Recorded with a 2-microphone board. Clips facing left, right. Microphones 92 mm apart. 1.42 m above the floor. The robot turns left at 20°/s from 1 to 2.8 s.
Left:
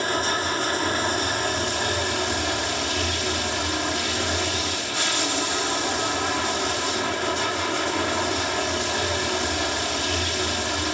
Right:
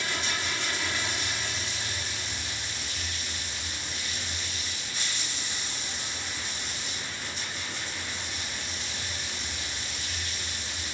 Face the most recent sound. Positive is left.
turn(degrees=95)